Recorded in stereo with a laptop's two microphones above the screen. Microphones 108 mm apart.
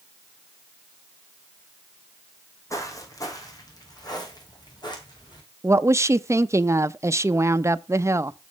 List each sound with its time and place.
2.7 s footsteps: 30° left (ahead or behind), 2.5 m; by 5.4 s 45° left (ahead or behind), 4 m
5.6 s a woman speaking: 25° right (ahead or behind), 0.6 m